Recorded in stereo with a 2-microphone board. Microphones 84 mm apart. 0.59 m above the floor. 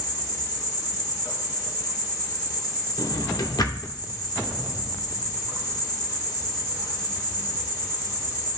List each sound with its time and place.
0.0 s an insect: 50° left (ahead or behind), 2.5 m
3.0 s a drawer: 50° left (ahead or behind), 0.7 m